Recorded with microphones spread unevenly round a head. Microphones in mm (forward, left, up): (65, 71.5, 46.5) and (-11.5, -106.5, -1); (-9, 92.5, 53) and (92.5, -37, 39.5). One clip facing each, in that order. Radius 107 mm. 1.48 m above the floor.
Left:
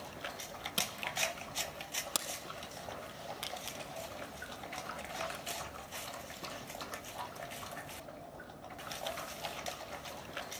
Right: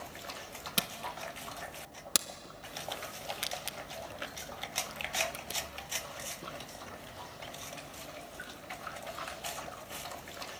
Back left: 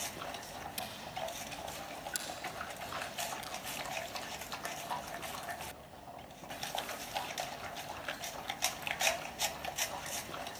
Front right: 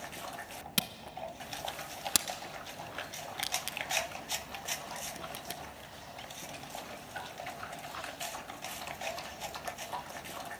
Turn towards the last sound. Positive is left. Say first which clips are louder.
# right 1 dB, front right 2 dB
turn(degrees=-45)